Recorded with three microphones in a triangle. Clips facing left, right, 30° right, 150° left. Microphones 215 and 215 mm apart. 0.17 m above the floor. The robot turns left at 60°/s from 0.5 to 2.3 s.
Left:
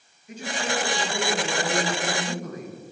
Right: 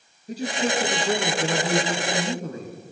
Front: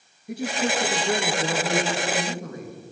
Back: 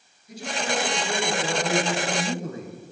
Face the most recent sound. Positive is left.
turn(degrees=-145)